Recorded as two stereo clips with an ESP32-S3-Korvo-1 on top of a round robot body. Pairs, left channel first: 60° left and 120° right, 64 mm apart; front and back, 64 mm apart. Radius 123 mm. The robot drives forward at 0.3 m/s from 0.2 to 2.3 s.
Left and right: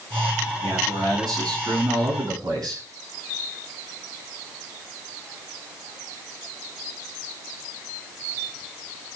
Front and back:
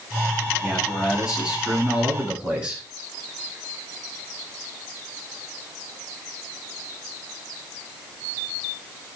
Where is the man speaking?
100° right, 8.5 m; by 2.8 s 105° right, 8.5 m.